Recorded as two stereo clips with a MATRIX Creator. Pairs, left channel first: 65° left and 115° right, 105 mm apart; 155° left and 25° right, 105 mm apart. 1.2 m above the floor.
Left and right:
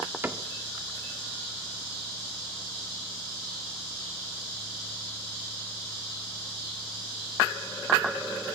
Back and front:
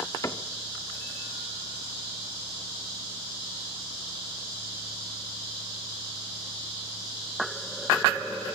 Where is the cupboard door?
165° right, 0.9 m.